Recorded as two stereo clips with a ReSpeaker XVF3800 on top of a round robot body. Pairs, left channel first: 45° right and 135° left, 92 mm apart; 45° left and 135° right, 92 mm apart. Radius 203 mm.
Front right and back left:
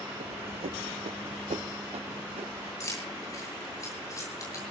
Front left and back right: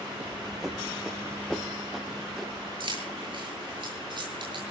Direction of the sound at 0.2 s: 150° left.